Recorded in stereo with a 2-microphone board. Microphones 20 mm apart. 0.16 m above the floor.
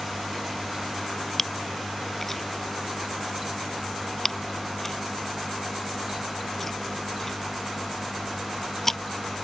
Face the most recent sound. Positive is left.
turn(degrees=15)  # may be behind; listen again after turning